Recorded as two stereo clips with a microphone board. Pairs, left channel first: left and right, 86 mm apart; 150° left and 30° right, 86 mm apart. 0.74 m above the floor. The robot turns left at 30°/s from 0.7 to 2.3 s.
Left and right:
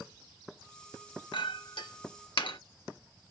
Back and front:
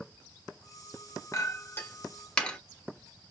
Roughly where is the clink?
Left.